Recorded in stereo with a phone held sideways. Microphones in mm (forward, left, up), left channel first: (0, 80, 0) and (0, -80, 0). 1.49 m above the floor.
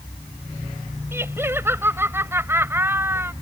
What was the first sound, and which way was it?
Laughter, 15° right (ahead or behind).